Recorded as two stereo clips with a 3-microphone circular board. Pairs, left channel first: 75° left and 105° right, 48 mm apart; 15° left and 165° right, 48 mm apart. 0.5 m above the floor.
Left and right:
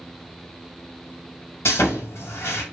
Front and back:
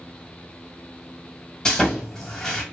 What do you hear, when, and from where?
1.6 s sawing: 90° left, 0.9 m